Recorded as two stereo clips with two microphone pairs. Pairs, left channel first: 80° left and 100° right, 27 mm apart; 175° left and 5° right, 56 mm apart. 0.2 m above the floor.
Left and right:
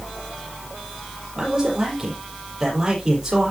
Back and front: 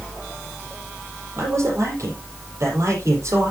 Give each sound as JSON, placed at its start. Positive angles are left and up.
{"t": 1.4, "sound": "a man speaking", "azimuth_deg": -35, "distance_m": 7.0}